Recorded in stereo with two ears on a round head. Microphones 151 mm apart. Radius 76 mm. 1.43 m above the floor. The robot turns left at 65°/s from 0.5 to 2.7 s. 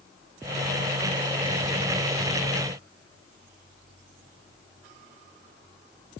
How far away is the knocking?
No knocking in this recording.